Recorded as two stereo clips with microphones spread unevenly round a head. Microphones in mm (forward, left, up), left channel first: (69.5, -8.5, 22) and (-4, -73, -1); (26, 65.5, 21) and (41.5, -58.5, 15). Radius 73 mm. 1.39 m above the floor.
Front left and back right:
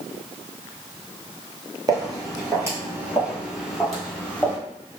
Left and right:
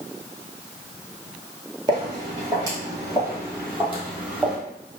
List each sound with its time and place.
1.9 s footsteps: 110° right, 1.5 m; by 4.6 s straight ahead, 1.6 m